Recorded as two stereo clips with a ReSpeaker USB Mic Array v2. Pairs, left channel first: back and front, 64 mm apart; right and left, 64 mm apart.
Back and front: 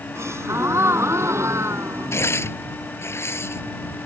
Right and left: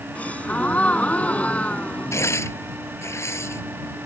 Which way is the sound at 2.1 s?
135° right.